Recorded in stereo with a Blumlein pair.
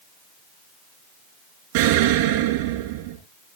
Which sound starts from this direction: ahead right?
An explosion, at 1.7 s.